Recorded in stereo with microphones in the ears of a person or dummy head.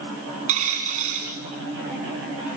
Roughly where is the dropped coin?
Right.